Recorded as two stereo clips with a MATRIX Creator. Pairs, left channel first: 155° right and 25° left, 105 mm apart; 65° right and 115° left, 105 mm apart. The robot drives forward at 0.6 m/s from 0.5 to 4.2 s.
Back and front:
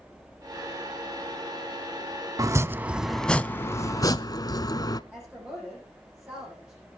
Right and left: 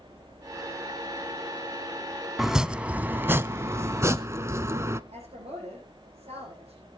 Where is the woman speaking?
100° left, 9 m.